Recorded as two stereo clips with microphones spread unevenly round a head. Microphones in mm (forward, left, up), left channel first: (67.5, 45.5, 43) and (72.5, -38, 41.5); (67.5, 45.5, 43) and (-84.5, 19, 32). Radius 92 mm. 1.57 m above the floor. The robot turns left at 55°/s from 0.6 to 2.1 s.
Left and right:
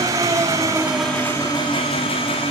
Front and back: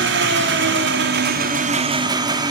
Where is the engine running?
150° right, 3 m; by 2.5 s 125° left, 3 m.